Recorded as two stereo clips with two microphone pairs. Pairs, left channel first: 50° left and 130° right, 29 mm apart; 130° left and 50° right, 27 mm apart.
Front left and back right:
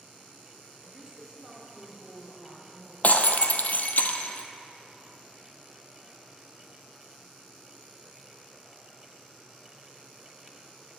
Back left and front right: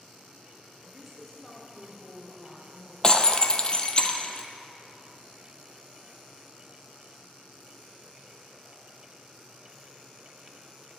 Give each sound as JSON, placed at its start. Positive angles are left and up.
{"t": 0.9, "sound": "a woman speaking", "azimuth_deg": -130, "distance_m": 1.0}
{"t": 3.0, "sound": "breaking glass", "azimuth_deg": 70, "distance_m": 0.5}